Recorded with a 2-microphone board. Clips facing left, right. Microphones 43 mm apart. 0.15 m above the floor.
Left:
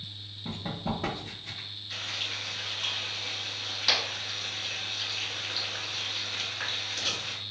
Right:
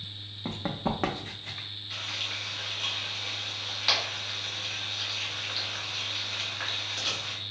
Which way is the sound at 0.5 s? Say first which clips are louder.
Right 3 dB; 85° right.